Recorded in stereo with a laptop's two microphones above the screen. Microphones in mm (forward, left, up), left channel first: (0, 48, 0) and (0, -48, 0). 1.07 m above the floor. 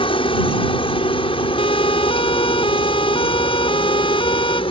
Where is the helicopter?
65° left (ahead or behind); by 4.7 s 70° left (ahead or behind).